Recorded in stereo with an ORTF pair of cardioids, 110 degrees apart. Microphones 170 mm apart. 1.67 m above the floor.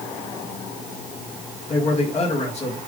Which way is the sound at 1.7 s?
40° left.